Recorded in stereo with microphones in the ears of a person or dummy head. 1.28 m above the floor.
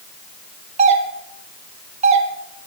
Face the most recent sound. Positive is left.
turn(degrees=-35)  # may be behind; listen again after turning